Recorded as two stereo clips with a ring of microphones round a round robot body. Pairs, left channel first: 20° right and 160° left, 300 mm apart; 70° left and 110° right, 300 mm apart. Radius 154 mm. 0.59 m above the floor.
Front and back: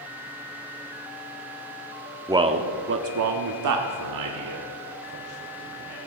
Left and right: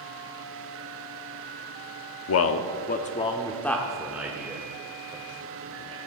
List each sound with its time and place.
2.3 s a man speaking: 80° left, 0.9 m; by 6.0 s 175° left, 3 m